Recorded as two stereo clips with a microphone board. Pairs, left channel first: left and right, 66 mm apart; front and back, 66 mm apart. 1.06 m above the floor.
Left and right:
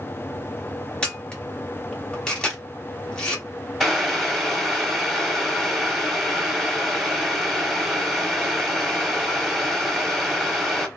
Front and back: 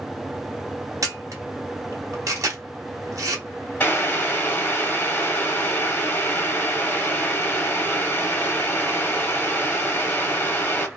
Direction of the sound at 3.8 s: Straight ahead.